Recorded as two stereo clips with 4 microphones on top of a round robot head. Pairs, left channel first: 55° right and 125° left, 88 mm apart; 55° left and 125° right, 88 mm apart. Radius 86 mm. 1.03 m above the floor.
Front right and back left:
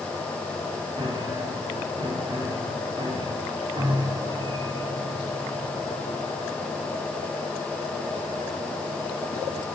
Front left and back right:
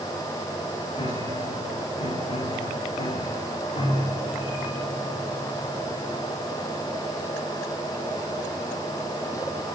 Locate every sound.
1.0 s a piano: 80° left, 8.5 m